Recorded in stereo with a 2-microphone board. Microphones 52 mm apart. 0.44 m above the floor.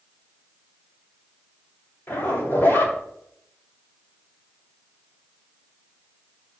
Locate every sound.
2.1 s a zipper: 40° left (ahead or behind), 2.5 m